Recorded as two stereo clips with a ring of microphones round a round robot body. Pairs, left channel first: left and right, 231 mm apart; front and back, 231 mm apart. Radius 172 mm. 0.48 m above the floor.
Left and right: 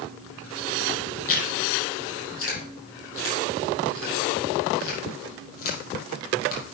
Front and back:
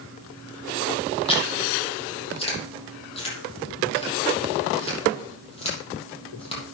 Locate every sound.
1.3 s chewing: 65° left, 6 m